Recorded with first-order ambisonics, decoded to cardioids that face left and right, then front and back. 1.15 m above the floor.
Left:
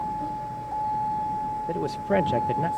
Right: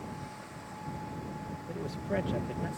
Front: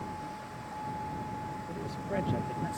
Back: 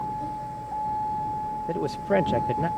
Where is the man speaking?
140° left.